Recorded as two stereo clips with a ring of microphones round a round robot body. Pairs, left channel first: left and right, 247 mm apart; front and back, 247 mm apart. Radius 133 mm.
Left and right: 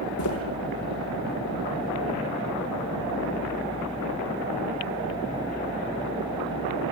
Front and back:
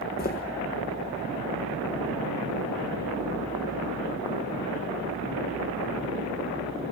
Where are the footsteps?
55° left, 3.5 m.